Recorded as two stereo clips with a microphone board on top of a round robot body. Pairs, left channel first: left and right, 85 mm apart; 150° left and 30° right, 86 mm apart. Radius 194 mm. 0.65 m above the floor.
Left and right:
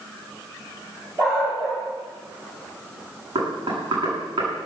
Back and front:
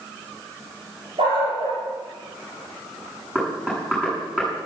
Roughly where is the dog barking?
Ahead right.